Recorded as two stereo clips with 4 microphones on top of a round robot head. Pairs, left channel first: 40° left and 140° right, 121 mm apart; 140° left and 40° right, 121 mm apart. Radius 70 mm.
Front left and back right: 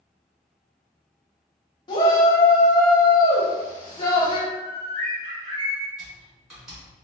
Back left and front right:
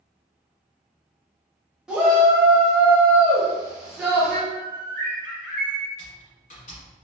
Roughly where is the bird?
Behind right.